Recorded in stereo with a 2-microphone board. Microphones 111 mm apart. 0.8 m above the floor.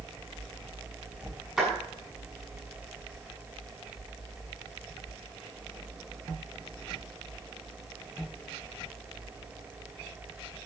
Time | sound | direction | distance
1.6 | a clap | 5° right (ahead or behind) | 7 m